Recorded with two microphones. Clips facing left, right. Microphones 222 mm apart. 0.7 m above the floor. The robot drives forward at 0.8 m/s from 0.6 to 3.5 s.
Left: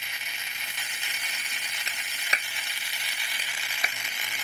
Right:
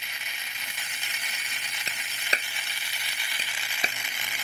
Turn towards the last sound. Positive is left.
turn(degrees=-30)  # may be behind; listen again after turning